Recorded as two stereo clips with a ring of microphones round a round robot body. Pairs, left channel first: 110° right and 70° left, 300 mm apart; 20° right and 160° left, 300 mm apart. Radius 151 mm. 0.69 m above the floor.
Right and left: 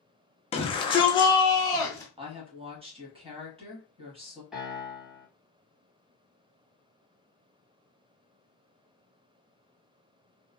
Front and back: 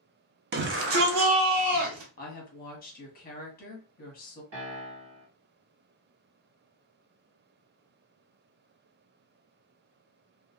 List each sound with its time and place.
0.5 s a shout: 170° right, 0.7 m; by 2.1 s 170° left, 1.3 m
2.2 s a woman speaking: 10° left, 1.1 m
4.5 s a piano: 155° left, 1.2 m